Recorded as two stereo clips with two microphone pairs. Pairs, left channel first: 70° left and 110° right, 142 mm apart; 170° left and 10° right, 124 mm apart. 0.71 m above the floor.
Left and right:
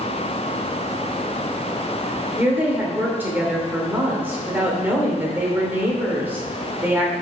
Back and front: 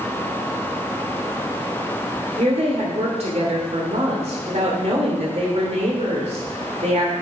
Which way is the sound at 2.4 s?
35° right.